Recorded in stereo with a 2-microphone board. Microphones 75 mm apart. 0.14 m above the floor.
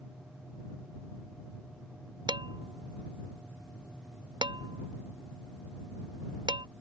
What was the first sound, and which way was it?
Dishes clattering, 85° right.